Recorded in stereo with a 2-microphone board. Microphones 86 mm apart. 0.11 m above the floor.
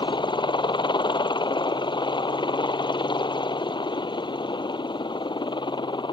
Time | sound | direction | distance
0.0 | a helicopter | 65° left (ahead or behind) | ?